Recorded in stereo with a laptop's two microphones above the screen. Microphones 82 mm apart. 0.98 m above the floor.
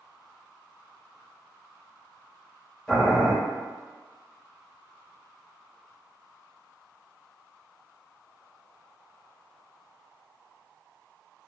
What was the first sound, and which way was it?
Boiling, centre (ahead or behind).